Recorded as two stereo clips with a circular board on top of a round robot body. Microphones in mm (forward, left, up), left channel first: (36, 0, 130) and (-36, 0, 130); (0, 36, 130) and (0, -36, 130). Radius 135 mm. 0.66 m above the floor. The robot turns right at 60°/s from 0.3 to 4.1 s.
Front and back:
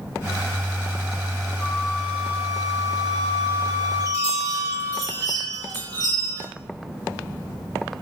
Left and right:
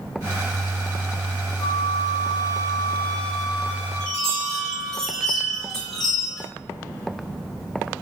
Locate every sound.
1.6 s a flute: 75° left, 1.6 m; by 5.0 s 135° right, 1.6 m
4.0 s a chime: 165° left, 3.5 m; by 6.4 s 170° left, 3.5 m